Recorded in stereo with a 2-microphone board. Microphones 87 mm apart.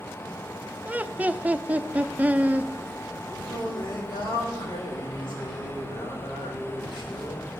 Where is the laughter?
15° right (ahead or behind), 0.5 m.